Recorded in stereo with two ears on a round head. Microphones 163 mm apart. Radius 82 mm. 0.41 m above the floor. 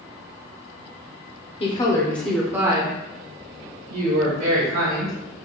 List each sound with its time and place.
1.6 s a woman speaking: 30° left (ahead or behind), 0.9 m; by 5.2 s 60° right (ahead or behind), 1.8 m